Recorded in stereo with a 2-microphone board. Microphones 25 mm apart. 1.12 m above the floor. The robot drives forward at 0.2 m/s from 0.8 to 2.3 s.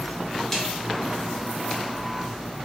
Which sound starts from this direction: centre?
A snare drum, at 0.5 s.